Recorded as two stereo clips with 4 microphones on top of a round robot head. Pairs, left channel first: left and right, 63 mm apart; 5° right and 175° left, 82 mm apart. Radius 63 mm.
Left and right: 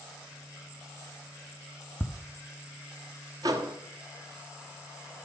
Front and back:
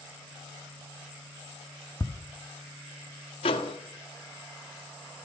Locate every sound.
2.0 s ticking: 10° left, 1.0 m
3.4 s a microwave: 40° right, 1.3 m